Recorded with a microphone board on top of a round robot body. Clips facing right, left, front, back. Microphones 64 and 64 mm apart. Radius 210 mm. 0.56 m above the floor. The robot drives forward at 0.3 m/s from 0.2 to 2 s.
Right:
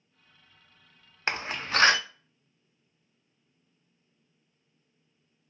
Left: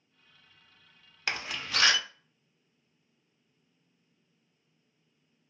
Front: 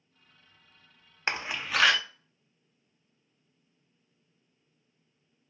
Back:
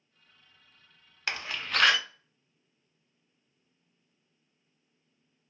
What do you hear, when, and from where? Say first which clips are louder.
1.3 s a door slam: right 4 dB, front 2 dB; 50° right, 0.6 m; by 2.0 s 100° right, 0.5 m